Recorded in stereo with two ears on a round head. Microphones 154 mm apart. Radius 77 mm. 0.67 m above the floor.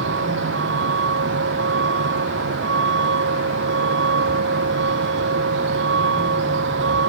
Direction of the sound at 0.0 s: 85° right.